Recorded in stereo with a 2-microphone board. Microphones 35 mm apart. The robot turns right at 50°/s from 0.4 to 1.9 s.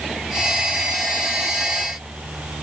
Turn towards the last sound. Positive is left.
No sound to turn to.